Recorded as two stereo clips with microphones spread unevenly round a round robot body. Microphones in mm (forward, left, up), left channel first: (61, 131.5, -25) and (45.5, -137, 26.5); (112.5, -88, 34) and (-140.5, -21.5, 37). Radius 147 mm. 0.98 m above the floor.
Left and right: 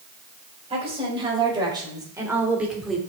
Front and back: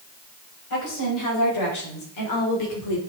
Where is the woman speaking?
25° right, 6 m; by 3.0 s straight ahead, 3 m.